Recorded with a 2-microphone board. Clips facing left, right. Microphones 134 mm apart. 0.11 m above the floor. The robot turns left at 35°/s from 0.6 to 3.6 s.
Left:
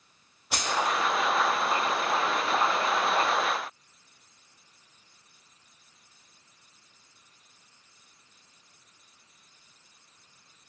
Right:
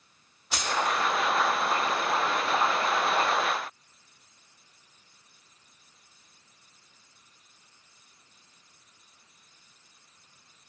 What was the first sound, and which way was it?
Keys jangling, 60° left (ahead or behind).